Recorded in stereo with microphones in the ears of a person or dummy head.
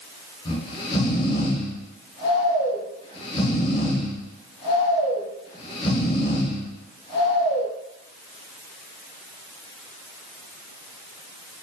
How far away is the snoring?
About 0.8 m.